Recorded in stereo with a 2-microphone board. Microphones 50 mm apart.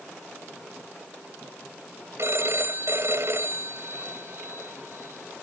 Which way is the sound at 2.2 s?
65° right (ahead or behind).